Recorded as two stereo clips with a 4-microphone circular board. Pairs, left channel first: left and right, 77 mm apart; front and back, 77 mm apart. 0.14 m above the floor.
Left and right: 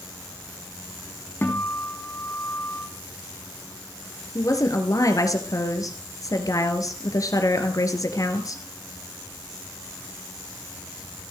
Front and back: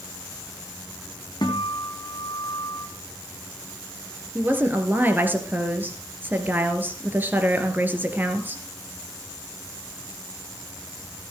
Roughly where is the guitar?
Ahead left.